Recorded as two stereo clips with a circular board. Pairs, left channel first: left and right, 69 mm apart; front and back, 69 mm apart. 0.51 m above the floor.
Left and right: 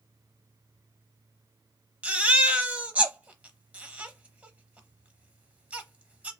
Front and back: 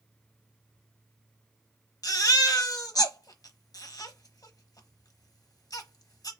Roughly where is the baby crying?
Ahead right.